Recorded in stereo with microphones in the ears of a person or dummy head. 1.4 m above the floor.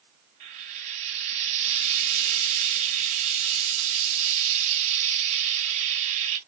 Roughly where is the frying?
Right.